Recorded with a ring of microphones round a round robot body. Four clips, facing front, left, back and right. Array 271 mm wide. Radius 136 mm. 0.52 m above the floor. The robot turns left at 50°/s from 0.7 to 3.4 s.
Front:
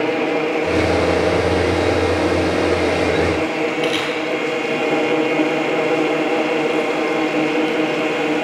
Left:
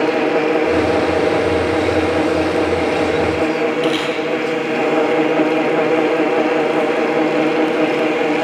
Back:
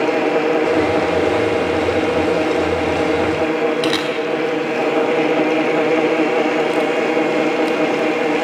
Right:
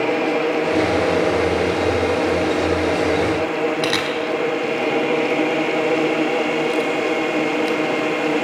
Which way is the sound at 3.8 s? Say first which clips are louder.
Left 3 dB, back 2 dB; 130° right.